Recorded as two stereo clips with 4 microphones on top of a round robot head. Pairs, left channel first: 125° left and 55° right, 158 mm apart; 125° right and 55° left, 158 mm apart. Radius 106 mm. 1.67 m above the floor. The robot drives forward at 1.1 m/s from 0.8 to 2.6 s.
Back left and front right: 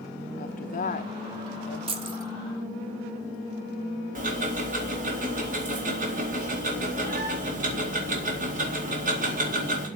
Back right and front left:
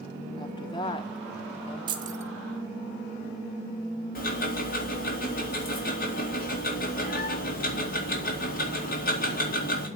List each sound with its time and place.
0.4 s a woman speaking: 170° left, 1.0 m; by 1.8 s 175° left, 2 m
1.9 s keys jangling: 5° right, 0.9 m; by 2.3 s 15° right, 0.7 m
4.2 s ticking: 95° right, 4 m